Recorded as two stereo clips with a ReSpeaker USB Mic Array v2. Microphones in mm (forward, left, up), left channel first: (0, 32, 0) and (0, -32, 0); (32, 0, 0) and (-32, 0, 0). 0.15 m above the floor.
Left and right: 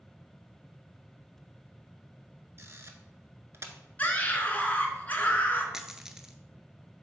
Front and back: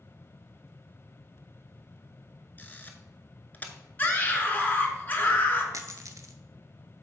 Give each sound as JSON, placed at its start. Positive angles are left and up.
{"t": 2.6, "sound": "a camera shutter", "azimuth_deg": -55, "distance_m": 0.7}
{"t": 4.0, "sound": "a scream", "azimuth_deg": 40, "distance_m": 1.5}
{"t": 5.7, "sound": "a dropped coin", "azimuth_deg": -170, "distance_m": 0.6}